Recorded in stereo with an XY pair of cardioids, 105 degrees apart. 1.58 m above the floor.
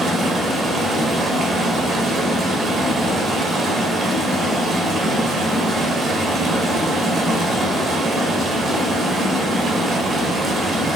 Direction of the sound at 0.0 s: 50° right.